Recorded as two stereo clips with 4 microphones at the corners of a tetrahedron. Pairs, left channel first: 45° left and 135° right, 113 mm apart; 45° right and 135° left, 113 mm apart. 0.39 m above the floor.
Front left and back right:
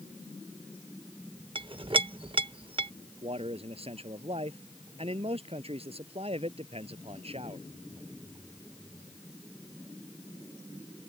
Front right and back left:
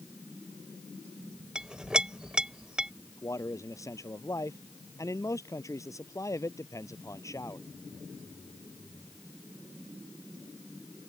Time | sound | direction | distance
1.6 | a clink | 145° right | ?
3.2 | a man speaking | 105° right | ?